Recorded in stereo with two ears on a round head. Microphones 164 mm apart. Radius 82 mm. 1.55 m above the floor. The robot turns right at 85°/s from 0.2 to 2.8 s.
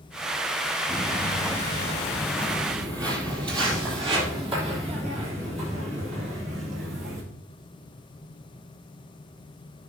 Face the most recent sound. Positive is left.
turn(degrees=-45)  # may be behind; listen again after turning